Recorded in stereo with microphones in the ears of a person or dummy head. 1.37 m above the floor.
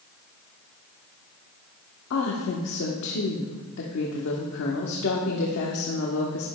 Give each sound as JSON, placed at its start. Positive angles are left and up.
{"t": 2.1, "sound": "a woman speaking", "side_deg": 65, "distance_m": 1.1}